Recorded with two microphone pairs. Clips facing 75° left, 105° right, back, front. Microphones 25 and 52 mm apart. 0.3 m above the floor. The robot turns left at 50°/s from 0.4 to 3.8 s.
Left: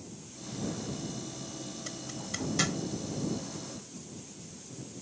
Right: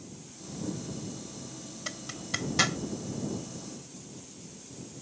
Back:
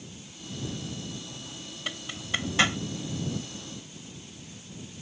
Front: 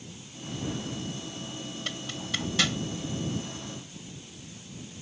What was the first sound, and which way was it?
A zipper, 115° right.